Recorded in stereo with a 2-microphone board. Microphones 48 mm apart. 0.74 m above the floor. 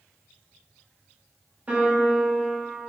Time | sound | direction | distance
1.7 | a piano | 30° right (ahead or behind) | 0.9 m